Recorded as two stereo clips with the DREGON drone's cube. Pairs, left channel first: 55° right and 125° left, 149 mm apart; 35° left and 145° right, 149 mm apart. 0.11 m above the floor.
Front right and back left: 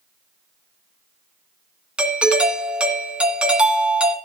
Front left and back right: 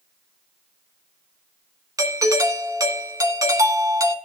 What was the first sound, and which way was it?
A doorbell, 165° right.